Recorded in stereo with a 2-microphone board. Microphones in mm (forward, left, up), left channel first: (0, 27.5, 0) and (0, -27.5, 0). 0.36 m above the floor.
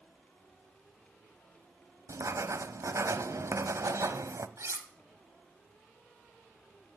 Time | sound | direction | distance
2.1 | writing | 70° right (ahead or behind) | 0.8 m
4.6 | cutlery clinking | 60° right (ahead or behind) | 1.5 m